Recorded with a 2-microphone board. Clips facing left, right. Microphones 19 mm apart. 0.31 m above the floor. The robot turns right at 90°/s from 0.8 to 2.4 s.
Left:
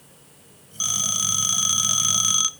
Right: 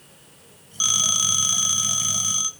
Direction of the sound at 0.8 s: 20° right (ahead or behind).